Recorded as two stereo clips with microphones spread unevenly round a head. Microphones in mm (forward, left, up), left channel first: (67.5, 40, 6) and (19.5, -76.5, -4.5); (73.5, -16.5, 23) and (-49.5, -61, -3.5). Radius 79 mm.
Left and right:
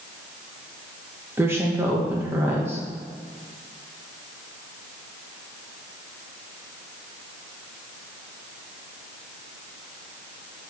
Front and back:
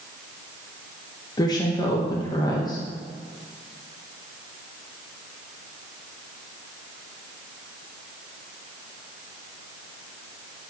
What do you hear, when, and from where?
1.4 s a woman speaking: 40° right, 1.1 m